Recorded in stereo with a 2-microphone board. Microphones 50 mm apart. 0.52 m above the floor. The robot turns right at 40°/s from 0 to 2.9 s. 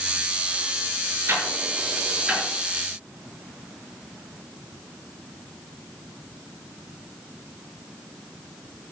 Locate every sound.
1.3 s ticking: 55° right (ahead or behind), 6.5 m; by 2.5 s 5° right (ahead or behind), 6.5 m